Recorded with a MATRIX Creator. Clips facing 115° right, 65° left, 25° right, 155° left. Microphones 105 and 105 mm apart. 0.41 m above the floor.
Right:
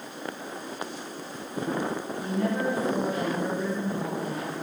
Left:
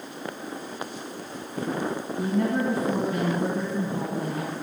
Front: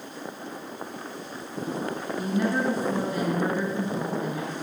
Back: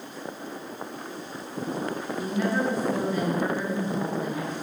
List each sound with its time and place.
2.2 s a woman speaking: 65° left, 4 m